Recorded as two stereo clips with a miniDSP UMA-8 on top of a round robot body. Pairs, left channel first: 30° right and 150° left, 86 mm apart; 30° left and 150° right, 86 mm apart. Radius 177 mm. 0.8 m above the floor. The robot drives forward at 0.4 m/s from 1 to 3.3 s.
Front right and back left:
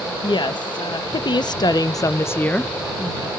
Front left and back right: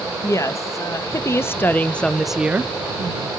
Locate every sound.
0.2 s a woman speaking: 20° right, 0.8 m; by 3.3 s 145° right, 0.6 m